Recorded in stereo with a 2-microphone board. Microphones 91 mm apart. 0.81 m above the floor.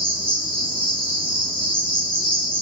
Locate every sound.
0.0 s an insect: 75° right (ahead or behind), 1.0 m